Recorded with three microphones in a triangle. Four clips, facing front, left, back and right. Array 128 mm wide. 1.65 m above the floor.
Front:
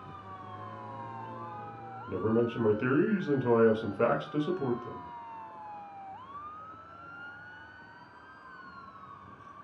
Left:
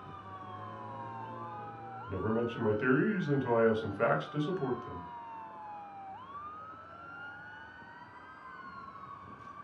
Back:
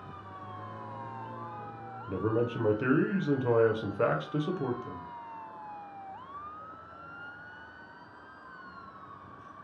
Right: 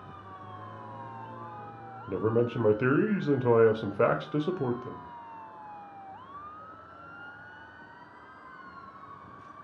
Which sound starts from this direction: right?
A man speaking, at 2.1 s.